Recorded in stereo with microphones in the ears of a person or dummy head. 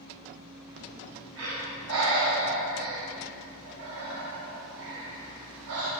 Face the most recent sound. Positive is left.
turn(degrees=-75)  # may be behind; listen again after turning